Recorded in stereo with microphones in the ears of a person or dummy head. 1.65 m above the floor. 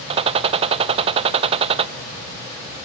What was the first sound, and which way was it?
A gunshot, 30° right (ahead or behind).